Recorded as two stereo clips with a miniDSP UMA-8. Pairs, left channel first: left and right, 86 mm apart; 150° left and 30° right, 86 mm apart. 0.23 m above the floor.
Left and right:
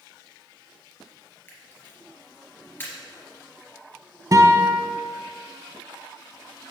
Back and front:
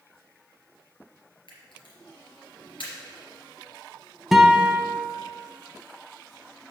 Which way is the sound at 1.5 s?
150° left.